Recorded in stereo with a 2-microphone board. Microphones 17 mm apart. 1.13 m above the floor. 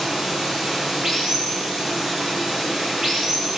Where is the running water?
35° right (ahead or behind), 7.5 m.